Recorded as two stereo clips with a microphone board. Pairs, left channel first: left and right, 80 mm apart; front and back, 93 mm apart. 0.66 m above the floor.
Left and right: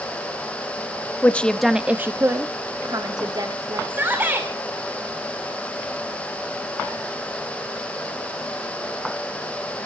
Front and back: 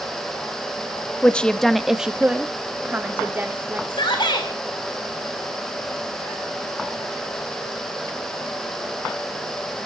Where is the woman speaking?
55° left, 0.7 m; by 3.8 s 115° right, 1.8 m.